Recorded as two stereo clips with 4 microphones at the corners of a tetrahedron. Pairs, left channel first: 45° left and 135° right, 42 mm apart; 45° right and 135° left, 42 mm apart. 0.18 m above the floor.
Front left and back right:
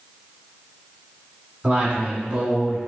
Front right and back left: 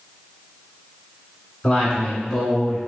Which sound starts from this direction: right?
A man speaking, at 1.6 s.